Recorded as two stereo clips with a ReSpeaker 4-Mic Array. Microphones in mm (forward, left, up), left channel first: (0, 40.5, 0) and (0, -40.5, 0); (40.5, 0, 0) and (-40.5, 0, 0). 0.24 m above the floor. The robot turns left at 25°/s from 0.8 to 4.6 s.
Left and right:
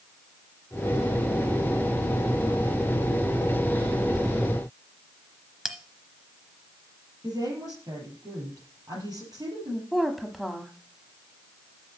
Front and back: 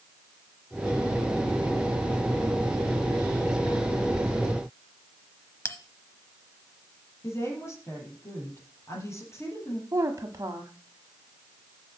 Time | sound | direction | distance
5.7 | a bell | 10° right | 0.8 m
7.2 | a woman speaking | 55° right | 5.5 m
9.9 | a woman speaking | straight behind | 1.2 m